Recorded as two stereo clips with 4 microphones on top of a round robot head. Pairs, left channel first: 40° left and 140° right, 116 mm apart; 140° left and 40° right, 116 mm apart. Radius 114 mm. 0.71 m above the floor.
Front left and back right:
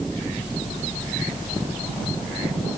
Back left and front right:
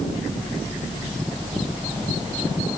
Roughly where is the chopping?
No chopping in this recording.